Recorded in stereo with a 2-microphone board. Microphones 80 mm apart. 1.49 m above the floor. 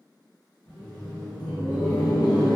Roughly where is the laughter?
Left.